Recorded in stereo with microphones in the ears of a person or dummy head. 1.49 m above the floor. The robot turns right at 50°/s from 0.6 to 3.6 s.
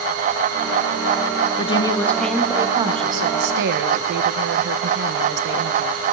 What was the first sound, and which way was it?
A woman speaking, 145° left.